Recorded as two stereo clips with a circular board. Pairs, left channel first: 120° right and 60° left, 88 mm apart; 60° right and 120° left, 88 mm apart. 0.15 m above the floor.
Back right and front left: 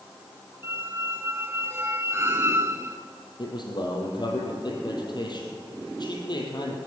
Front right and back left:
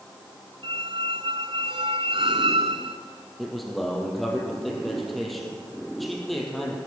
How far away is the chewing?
No chewing in this recording.